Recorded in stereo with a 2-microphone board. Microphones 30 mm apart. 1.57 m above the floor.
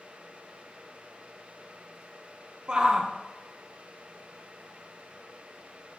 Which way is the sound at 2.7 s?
35° right (ahead or behind).